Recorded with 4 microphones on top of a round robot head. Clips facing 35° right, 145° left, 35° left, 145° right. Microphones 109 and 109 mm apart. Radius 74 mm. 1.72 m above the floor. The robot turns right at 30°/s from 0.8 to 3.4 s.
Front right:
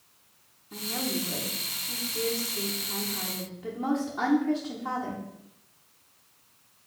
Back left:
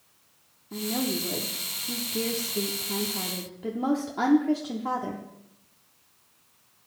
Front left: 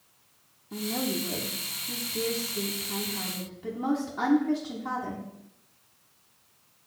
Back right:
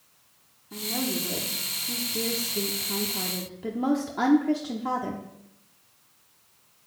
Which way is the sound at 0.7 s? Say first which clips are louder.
Back left 4 dB, even; 110° left.